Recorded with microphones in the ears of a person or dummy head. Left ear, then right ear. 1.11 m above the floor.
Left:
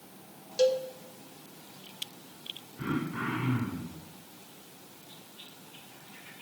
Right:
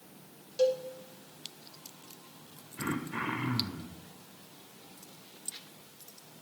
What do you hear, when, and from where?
0.6 s a cowbell: 5° left (ahead or behind), 0.7 m
2.8 s throat clearing: 60° right (ahead or behind), 1.1 m